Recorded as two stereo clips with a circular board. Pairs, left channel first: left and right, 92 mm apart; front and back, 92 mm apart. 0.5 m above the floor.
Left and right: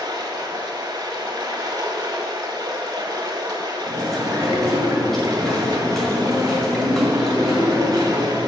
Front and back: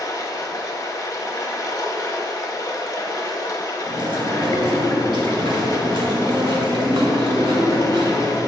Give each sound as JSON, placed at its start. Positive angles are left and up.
{"t": 0.0, "sound": "running water", "azimuth_deg": -50, "distance_m": 0.9}
{"t": 3.9, "sound": "chewing", "azimuth_deg": 175, "distance_m": 2.0}